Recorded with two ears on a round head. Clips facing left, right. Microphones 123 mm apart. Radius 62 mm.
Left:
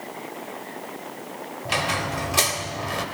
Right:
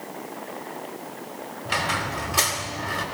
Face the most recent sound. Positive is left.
turn(degrees=25)  # may be behind; listen again after turning